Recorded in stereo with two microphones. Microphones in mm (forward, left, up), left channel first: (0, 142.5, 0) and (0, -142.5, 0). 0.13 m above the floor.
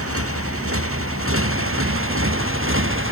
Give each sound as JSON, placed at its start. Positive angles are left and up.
{"t": 0.0, "sound": "a motorcycle", "side_deg": -50}